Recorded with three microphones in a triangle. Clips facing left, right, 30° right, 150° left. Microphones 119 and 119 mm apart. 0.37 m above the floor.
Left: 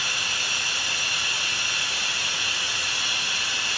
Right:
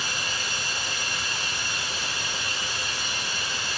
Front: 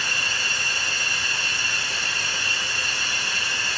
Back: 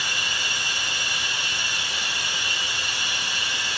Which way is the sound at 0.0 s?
75° left.